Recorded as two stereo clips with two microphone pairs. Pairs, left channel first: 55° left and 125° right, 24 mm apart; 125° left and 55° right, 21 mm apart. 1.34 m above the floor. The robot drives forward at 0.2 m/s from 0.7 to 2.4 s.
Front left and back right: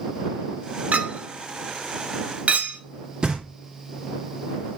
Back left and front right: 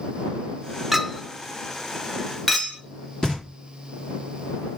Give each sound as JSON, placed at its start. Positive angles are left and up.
{"t": 0.9, "sound": "a clink", "azimuth_deg": -130, "distance_m": 0.5}
{"t": 3.2, "sound": "knocking", "azimuth_deg": -175, "distance_m": 1.4}